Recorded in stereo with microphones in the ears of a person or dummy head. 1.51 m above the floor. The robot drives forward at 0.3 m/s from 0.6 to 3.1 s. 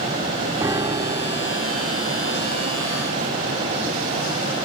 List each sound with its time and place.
0.6 s a piano: 15° right (ahead or behind), 0.8 m; by 1.6 s 25° right (ahead or behind), 0.5 m